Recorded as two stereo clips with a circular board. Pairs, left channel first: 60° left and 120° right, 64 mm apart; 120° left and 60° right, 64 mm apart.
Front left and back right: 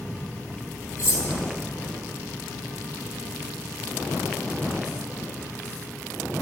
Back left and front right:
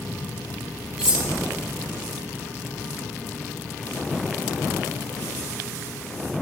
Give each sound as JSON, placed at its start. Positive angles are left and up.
{"t": 1.0, "sound": "cutlery clinking", "azimuth_deg": 20, "distance_m": 3.0}